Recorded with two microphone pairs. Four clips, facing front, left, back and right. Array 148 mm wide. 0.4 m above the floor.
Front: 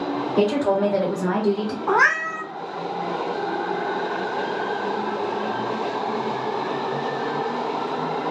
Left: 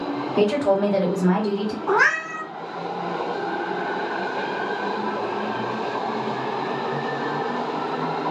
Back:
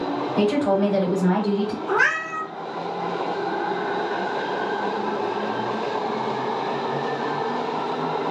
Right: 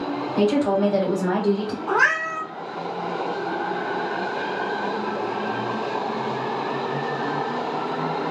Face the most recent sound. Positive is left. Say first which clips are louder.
# left 1 dB, front 5 dB
turn(degrees=10)